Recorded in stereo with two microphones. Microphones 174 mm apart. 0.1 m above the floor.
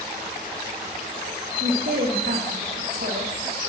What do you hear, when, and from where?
1.6 s a woman speaking: 65° right (ahead or behind), 4 m